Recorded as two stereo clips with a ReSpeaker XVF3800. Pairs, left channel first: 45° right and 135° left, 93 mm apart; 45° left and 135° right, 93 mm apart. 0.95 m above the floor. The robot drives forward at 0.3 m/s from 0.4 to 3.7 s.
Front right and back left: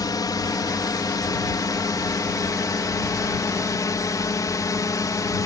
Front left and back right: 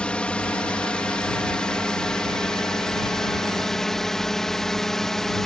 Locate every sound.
0.0 s a drone: 30° right; by 5.5 s 40° right